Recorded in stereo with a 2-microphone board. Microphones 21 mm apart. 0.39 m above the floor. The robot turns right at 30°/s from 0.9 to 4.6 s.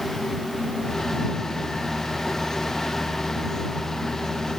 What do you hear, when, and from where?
Only background noise.